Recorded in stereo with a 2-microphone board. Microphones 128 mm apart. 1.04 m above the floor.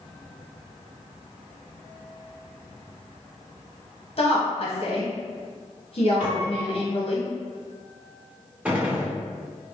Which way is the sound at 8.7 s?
10° right (ahead or behind).